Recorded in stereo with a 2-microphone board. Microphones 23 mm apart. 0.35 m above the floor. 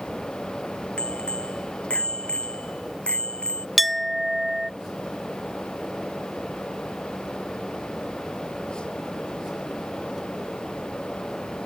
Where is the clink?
5° right (ahead or behind).